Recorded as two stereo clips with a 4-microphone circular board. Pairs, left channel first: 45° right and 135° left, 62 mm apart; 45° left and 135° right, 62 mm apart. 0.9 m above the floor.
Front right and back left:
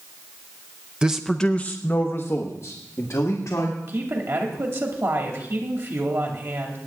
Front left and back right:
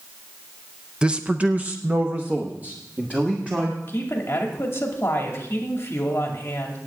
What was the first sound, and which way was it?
A man speaking, 175° right.